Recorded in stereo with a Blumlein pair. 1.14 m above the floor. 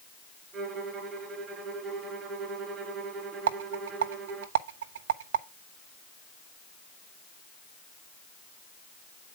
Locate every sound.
0.5 s a violin: 25° right, 3.5 m
3.5 s a rattle: 55° right, 0.9 m